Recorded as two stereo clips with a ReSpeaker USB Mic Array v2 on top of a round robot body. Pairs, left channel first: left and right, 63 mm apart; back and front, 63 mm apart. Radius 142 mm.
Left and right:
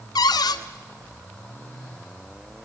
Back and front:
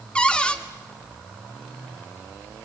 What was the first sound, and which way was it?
A cupboard door, 105° left.